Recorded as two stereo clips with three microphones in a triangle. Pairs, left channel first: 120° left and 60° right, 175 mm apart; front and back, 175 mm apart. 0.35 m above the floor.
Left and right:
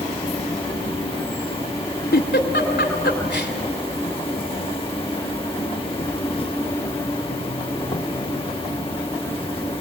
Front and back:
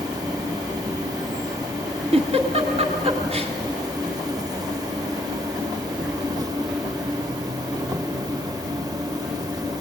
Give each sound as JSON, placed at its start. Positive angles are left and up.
{"t": 0.0, "sound": "an insect", "azimuth_deg": 135, "distance_m": 0.8}
{"t": 2.1, "sound": "a giggle", "azimuth_deg": 125, "distance_m": 2.0}